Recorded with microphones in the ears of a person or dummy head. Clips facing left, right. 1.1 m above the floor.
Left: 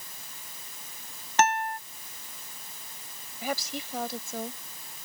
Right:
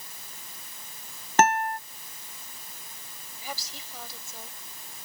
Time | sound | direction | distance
1.4 | a guitar | 40° right (ahead or behind) | ?
3.4 | a woman speaking | 55° left (ahead or behind) | ?